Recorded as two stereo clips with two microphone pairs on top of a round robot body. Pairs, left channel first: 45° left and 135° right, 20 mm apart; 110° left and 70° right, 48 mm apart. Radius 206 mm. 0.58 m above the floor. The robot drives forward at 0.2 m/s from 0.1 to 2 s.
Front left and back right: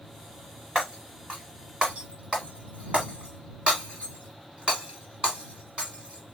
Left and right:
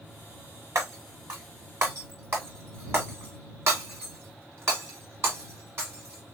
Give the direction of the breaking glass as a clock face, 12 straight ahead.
3 o'clock.